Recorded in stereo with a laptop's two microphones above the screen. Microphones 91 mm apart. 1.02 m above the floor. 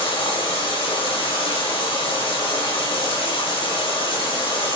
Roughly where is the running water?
Left.